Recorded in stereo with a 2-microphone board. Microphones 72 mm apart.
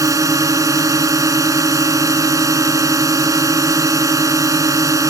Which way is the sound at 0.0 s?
50° right (ahead or behind).